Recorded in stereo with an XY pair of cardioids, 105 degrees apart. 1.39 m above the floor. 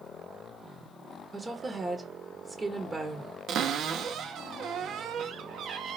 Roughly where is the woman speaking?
Ahead right.